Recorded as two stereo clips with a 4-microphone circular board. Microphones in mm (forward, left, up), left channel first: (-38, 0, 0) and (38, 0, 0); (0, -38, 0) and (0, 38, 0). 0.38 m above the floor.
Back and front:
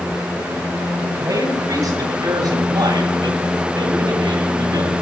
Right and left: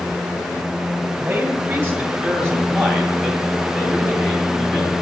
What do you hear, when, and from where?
1.2 s a man speaking: 25° left, 1.9 m; by 4.9 s 20° right, 3 m